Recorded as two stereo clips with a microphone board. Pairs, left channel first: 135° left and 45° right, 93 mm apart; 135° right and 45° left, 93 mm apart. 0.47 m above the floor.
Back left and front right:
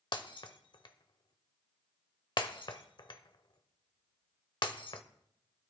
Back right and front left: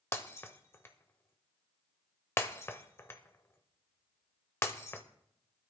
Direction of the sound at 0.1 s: 165° left.